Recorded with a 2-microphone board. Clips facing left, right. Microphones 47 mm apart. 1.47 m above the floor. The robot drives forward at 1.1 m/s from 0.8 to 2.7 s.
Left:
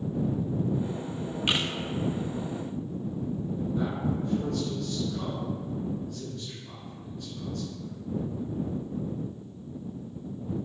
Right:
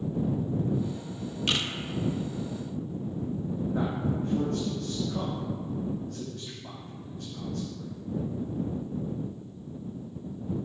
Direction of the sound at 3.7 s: 75° right (ahead or behind).